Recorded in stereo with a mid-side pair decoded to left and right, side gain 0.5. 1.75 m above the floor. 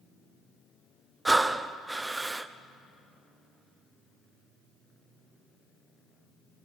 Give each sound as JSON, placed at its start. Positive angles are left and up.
{"t": 1.2, "sound": "breathing", "azimuth_deg": -15, "distance_m": 1.0}